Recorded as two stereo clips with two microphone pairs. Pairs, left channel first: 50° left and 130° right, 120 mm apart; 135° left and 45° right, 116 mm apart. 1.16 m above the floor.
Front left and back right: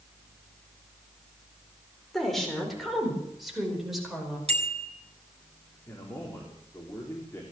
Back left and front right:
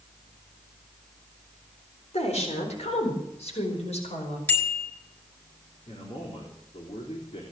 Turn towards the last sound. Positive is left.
turn(degrees=115)